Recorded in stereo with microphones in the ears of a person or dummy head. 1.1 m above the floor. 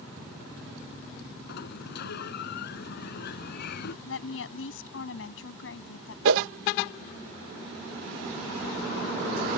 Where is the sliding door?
70° left (ahead or behind).